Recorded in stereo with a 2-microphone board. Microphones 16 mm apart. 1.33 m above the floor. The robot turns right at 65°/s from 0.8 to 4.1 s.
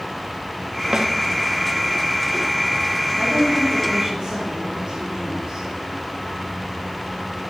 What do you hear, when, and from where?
0.9 s a snare drum: 55° right (ahead or behind), 0.6 m; by 1.1 s 50° right (ahead or behind), 0.6 m
3.1 s a woman speaking: 140° right, 2.5 m; by 5.7 s 75° right, 2.5 m